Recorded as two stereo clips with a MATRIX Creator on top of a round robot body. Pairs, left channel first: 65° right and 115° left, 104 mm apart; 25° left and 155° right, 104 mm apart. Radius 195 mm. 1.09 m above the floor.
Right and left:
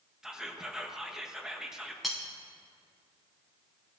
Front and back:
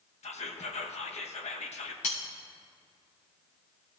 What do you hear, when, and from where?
0.2 s whispering: 30° left, 1.1 m
2.0 s cutlery clinking: 25° left, 0.6 m